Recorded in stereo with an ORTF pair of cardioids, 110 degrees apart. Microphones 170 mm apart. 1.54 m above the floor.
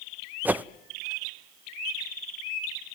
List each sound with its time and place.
0.5 s a whoosh: 10° right, 0.8 m